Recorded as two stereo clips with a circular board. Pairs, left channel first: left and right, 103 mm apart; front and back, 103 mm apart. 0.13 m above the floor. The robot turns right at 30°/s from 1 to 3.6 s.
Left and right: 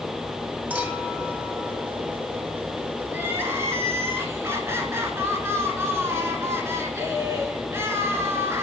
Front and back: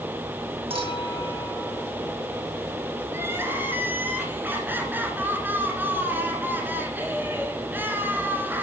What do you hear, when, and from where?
0.7 s a clink: 160° right, 1.9 m; by 1.8 s 135° right, 1.9 m
3.1 s crying: 145° right, 1.5 m; by 8.6 s 130° right, 1.5 m